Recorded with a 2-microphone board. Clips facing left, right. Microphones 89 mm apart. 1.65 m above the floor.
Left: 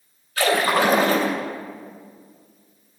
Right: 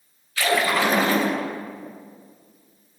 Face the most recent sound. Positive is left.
turn(degrees=50)  # may be behind; listen again after turning